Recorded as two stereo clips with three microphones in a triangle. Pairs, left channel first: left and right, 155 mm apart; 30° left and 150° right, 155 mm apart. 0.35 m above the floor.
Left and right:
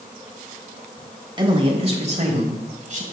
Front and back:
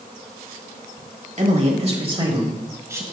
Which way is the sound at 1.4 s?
140° right.